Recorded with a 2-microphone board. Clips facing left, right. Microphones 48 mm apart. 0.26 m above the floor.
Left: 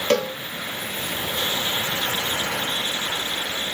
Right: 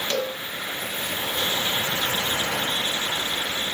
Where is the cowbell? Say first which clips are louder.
Left 7 dB; 55° left (ahead or behind), 1.2 m.